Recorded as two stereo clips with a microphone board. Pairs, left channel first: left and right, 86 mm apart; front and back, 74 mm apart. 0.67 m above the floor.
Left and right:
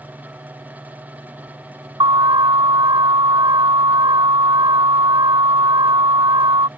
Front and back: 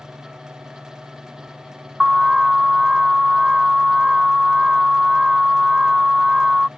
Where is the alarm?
95° right.